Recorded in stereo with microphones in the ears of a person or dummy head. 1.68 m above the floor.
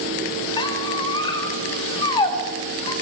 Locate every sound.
0.6 s a squeak: 25° left (ahead or behind), 2.5 m